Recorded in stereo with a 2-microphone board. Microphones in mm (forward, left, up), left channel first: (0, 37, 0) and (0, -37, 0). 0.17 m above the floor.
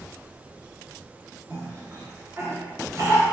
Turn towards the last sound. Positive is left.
turn(degrees=-40)  # may be behind; listen again after turning